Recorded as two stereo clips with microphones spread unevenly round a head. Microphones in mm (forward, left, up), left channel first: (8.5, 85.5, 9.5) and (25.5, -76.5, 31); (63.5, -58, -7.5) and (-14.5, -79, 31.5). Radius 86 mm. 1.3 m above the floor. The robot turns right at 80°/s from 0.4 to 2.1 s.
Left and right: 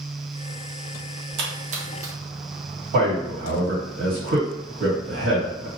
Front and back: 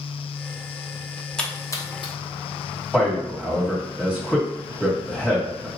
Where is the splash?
65° right, 0.7 m; by 2.1 s 5° right, 0.7 m.